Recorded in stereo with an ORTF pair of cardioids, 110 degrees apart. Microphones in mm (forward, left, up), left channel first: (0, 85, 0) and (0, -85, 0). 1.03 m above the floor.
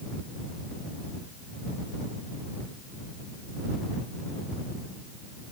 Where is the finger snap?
No finger snap in this recording.